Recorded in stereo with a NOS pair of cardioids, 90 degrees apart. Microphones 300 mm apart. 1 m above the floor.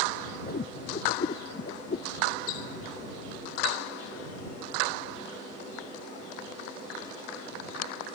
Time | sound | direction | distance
0.5 | a whoosh | 30° left | ?